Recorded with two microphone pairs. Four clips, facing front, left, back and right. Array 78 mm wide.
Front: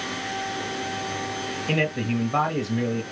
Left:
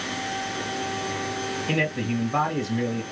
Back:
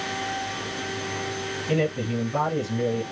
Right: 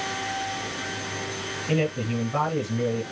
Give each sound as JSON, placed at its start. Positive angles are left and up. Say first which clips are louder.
{"t": 1.7, "sound": "a man speaking", "louder": "right 2 dB, even", "azimuth_deg": 5, "distance_m": 2.5}